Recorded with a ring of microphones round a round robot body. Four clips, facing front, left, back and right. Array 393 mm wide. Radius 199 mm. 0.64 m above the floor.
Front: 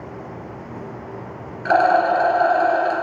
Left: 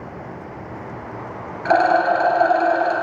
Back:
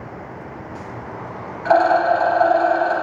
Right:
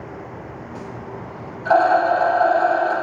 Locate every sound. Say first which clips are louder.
1.6 s a rattle: right 1 dB, back 1 dB; 55° left, 2.5 m